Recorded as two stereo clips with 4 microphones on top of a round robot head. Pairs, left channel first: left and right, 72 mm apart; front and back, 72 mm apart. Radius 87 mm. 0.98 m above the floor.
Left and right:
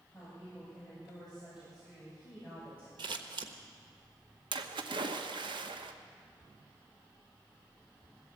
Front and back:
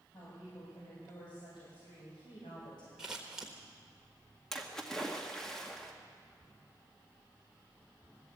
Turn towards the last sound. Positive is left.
turn(degrees=-85)